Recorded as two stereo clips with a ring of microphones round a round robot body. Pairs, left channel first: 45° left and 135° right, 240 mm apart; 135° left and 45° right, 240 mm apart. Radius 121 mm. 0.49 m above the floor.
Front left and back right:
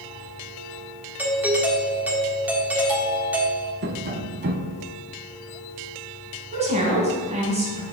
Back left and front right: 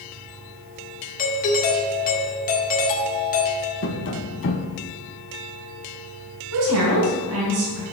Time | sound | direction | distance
1.2 | a doorbell | 145° left | 1.4 m
3.8 | tapping | 175° left | 0.8 m
6.5 | a woman speaking | 70° right | 3.5 m